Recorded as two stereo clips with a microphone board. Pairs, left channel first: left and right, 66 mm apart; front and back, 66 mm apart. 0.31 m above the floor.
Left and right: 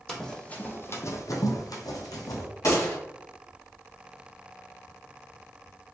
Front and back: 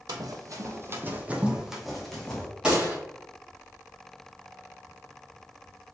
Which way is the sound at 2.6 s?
105° left.